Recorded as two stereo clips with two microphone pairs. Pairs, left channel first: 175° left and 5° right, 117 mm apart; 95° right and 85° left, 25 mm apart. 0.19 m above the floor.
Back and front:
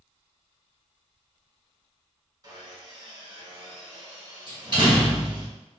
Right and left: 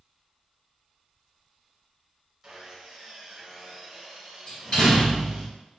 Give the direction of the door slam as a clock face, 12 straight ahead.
2 o'clock.